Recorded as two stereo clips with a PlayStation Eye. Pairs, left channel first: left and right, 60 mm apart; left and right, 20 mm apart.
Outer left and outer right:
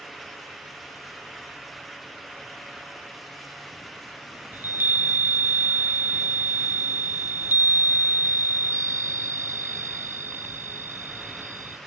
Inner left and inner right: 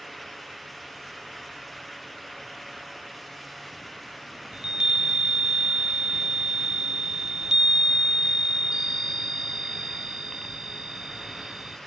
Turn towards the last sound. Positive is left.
turn(degrees=-35)  # may be behind; listen again after turning